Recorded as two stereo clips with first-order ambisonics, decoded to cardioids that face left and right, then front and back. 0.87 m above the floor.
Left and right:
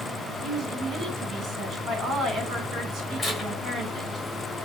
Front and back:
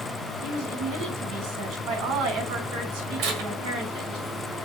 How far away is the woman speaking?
About 4.5 m.